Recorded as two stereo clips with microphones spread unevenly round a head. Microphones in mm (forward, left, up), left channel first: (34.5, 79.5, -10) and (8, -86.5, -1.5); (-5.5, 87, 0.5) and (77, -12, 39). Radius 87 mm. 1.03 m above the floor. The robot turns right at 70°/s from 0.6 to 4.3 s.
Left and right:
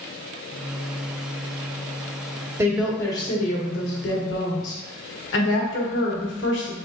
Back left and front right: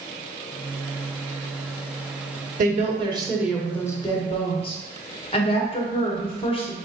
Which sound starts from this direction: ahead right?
A woman speaking, at 2.6 s.